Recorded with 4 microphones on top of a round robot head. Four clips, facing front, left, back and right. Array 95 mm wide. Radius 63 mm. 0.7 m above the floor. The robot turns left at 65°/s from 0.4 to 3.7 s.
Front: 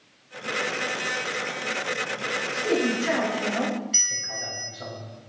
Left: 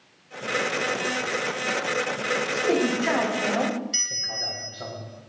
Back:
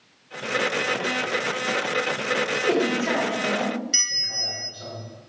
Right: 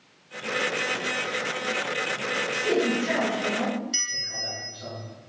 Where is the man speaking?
150° left, 3.5 m; by 4.9 s 75° left, 3.5 m.